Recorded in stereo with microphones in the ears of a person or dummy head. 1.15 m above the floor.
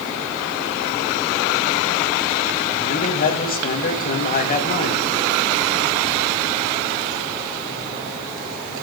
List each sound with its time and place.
2.8 s a man speaking: 40° left (ahead or behind), 1.2 m